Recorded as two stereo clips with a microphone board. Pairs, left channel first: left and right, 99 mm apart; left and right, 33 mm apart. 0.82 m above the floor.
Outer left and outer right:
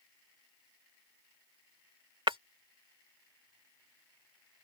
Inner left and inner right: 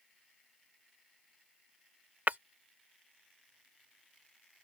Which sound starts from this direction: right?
Breaking glass, at 2.3 s.